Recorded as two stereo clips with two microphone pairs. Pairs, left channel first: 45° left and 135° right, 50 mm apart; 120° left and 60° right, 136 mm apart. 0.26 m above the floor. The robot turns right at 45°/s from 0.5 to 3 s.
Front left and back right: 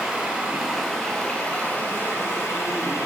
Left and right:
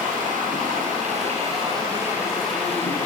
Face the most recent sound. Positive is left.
turn(degrees=55)